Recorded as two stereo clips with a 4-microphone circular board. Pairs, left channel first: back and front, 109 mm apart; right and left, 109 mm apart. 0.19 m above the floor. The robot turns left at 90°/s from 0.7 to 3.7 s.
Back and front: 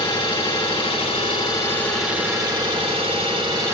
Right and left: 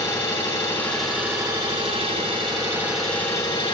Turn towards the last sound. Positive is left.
turn(degrees=-60)